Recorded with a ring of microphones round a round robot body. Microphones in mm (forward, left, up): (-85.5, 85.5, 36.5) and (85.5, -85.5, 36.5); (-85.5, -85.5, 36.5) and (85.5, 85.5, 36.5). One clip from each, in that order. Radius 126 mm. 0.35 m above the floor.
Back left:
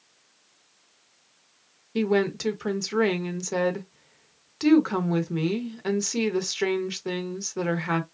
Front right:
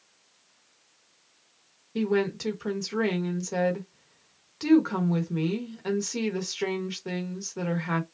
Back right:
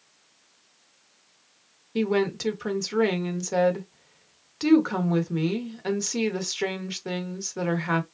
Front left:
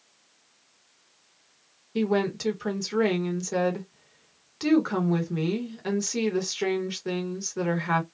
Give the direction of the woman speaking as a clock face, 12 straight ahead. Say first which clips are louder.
Back left 3 dB, back right 1 dB; 7 o'clock.